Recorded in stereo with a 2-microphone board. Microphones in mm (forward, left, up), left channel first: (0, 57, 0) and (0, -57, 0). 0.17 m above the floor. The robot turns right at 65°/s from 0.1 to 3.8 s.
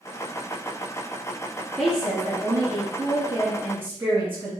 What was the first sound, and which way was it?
A woman speaking, 5° right (ahead or behind).